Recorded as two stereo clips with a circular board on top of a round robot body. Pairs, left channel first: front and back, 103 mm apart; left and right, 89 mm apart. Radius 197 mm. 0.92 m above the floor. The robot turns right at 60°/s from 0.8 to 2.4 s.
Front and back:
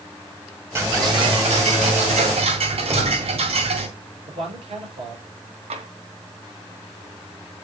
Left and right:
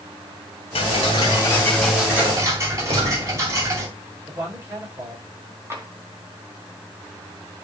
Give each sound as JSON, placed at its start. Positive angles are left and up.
{"t": 0.8, "sound": "ticking", "azimuth_deg": 115, "distance_m": 2.0}
{"t": 2.9, "sound": "a gunshot", "azimuth_deg": -120, "distance_m": 3.0}
{"t": 4.3, "sound": "a man speaking", "azimuth_deg": -150, "distance_m": 5.5}
{"t": 5.7, "sound": "tapping", "azimuth_deg": -155, "distance_m": 1.4}